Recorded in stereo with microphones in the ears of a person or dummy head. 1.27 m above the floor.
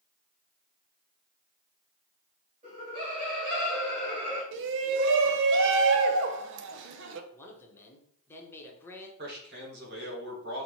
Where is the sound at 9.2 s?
55° right (ahead or behind), 1.4 m.